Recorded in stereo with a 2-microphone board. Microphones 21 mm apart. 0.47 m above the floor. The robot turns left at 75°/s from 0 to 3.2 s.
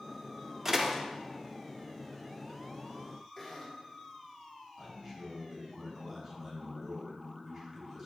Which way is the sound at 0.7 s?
20° right (ahead or behind).